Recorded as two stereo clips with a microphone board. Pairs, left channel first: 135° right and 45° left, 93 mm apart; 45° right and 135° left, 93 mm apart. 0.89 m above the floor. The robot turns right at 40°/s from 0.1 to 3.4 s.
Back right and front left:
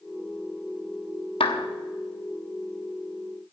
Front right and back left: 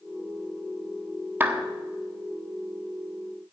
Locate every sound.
1.4 s a clap: 155° right, 1.0 m; by 1.7 s 145° right, 1.0 m